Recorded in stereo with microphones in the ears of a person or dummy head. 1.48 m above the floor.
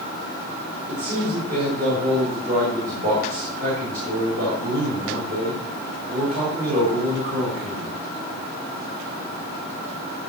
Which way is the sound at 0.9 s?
40° right (ahead or behind).